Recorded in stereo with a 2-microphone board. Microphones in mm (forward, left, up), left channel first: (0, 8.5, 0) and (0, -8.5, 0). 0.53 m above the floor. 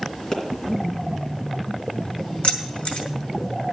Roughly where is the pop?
Left.